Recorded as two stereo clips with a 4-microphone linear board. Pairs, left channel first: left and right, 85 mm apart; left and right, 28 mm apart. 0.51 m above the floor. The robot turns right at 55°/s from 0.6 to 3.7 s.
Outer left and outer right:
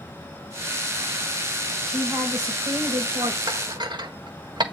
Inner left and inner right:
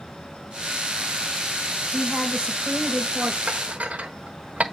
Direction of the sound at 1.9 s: 160° right.